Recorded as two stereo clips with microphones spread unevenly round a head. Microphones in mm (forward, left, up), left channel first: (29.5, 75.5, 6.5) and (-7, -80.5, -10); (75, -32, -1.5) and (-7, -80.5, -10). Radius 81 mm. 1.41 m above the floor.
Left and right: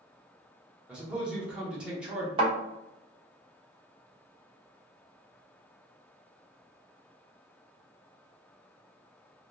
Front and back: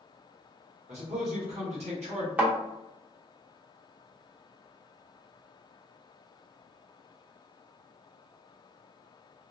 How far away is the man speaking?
About 0.8 m.